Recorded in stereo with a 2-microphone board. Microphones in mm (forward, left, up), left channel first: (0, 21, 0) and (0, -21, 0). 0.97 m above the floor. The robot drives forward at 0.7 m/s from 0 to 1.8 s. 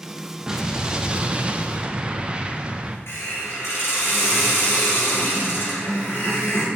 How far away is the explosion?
About 0.8 m.